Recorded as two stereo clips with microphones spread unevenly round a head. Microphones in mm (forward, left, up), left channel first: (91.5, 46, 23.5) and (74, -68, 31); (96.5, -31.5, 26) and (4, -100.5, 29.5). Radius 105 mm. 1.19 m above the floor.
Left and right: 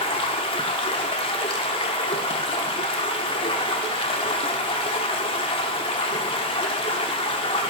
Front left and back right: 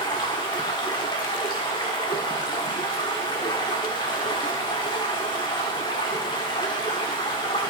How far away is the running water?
About 0.9 m.